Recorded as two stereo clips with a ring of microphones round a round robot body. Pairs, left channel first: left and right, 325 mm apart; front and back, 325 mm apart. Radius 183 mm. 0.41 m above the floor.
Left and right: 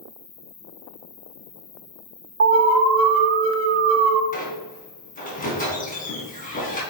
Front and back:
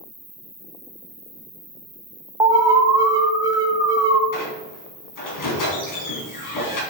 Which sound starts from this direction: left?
An insect, at 0.0 s.